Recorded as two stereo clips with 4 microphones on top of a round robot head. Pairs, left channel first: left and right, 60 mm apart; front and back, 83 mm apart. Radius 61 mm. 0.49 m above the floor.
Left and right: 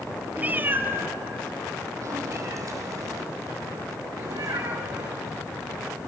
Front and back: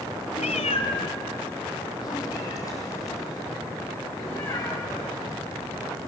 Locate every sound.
0.4 s a cat meowing: 25° right, 1.4 m; by 5.2 s 70° right, 5.5 m